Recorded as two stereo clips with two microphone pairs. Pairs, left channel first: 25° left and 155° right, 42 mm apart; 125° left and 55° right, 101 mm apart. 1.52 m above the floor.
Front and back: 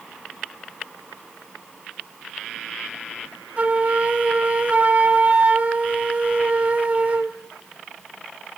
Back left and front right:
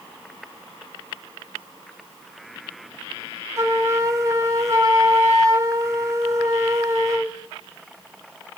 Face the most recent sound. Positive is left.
turn(degrees=-105)